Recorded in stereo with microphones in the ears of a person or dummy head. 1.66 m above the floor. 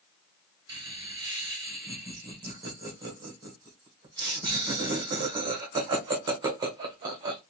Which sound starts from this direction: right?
Laughter, at 0.7 s.